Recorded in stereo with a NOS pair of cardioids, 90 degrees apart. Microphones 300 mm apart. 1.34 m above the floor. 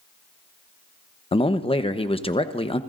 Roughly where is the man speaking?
Ahead.